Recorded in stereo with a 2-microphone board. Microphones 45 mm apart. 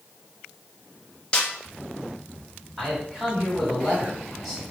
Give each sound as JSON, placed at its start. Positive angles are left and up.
{"t": 1.3, "sound": "a snare drum", "side_deg": 20, "distance_m": 0.7}
{"t": 2.8, "sound": "a man speaking", "side_deg": 0, "distance_m": 2.0}